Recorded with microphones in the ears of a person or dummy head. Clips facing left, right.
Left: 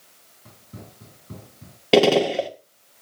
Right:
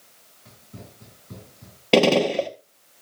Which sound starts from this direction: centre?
A gunshot, at 1.9 s.